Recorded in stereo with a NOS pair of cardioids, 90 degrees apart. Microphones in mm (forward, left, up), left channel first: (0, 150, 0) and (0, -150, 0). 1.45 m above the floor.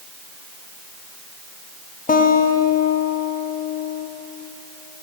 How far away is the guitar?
About 1.1 m.